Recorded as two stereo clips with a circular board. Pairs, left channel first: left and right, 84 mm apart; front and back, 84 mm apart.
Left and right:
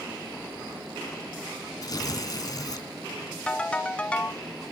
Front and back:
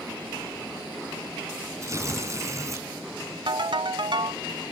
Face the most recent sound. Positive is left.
turn(degrees=165)